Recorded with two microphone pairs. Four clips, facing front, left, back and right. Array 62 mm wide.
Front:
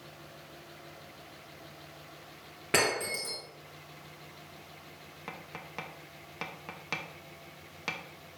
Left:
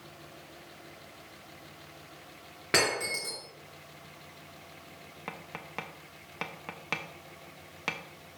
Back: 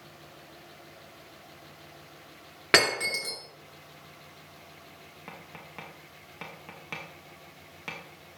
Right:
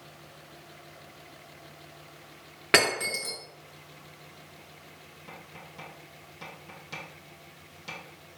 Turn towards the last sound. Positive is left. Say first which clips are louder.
# left 5 dB, front 2 dB
turn(degrees=65)